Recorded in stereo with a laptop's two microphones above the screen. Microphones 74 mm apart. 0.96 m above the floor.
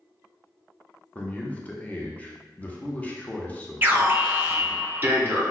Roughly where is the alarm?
Right.